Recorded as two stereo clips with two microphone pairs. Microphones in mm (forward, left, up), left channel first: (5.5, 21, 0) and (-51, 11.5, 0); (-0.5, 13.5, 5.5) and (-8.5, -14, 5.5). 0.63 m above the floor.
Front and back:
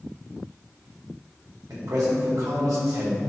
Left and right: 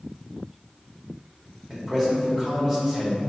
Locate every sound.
1.7 s a man speaking: straight behind, 2.0 m